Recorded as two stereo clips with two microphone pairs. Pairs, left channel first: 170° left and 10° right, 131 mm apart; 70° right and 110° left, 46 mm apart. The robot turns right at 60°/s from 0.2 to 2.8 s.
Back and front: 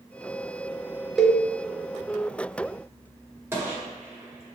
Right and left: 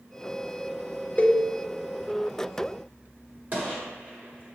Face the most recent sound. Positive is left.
turn(degrees=60)